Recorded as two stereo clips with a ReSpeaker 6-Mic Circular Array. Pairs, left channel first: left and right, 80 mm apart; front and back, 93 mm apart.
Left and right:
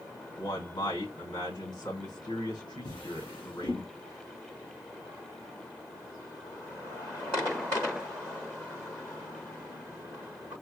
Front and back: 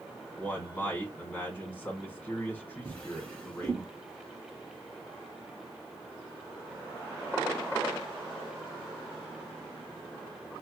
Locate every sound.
0.4 s a man speaking: 70° left, 2.5 m
2.9 s a drawer: 75° left, 1.8 m